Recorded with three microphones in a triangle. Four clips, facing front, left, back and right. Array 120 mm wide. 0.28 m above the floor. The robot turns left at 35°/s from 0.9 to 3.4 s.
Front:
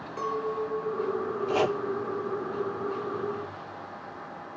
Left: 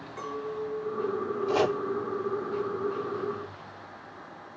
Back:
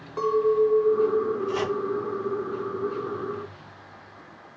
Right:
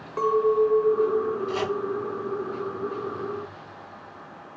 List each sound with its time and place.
0.2 s a clink: 105° right, 2.5 m; by 1.4 s 125° right, 2.5 m
1.5 s chopping: 55° left, 3 m; by 1.8 s 40° left, 3 m